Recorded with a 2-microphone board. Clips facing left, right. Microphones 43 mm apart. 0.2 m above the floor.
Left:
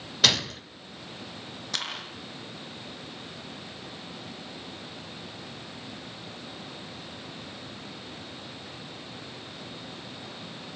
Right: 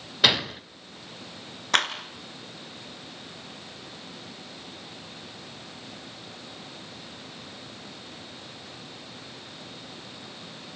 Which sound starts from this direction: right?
A clap, at 1.7 s.